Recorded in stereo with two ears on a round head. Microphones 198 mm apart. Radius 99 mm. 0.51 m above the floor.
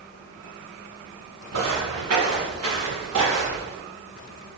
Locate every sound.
1.5 s footsteps: 80° right, 2.5 m; by 3.7 s 75° right (ahead or behind), 5 m